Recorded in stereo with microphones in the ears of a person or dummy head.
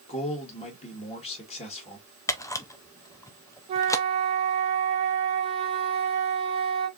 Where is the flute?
25° right (ahead or behind), 1.3 m.